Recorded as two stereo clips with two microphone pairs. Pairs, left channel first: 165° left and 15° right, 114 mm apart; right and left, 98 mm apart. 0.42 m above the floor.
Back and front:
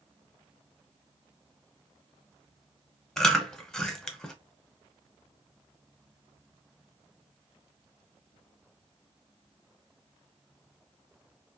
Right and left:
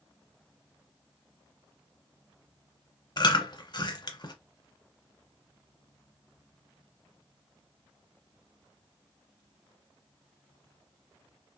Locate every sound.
3.2 s chewing: 110° right, 0.6 m